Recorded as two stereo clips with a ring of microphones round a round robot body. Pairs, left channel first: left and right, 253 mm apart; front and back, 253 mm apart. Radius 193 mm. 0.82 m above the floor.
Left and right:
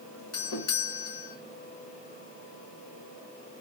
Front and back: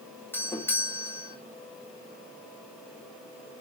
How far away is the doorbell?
About 2.5 m.